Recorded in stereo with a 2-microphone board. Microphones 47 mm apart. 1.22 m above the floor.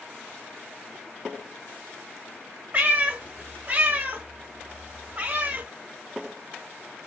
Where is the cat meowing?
30° right (ahead or behind), 1.1 m.